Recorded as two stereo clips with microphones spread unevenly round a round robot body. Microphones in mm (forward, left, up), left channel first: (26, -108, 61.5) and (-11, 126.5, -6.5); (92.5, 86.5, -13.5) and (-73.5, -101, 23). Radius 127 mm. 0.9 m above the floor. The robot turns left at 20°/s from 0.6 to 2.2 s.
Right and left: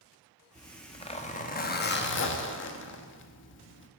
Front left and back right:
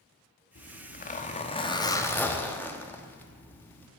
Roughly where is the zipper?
Ahead.